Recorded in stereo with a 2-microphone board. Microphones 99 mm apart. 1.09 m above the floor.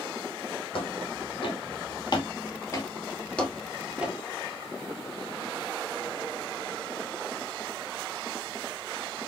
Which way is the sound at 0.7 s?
60° left (ahead or behind).